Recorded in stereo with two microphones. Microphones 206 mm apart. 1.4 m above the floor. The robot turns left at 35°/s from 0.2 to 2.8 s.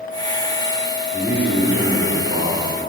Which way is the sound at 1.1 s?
Straight ahead.